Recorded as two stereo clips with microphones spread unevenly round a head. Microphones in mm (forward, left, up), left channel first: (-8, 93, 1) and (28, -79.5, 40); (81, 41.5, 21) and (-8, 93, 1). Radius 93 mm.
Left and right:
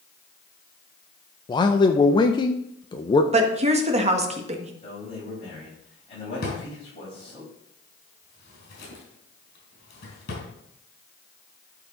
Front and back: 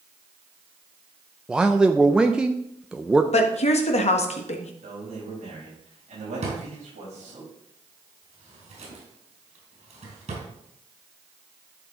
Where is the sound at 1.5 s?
90° left, 0.6 m.